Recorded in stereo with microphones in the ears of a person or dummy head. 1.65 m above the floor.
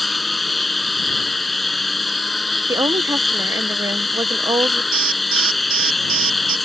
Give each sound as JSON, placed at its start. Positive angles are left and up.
{"t": 0.0, "sound": "a lawn mower", "side_deg": 0}
{"t": 2.7, "sound": "a woman speaking", "side_deg": -20}
{"t": 4.9, "sound": "an alarm", "side_deg": -45}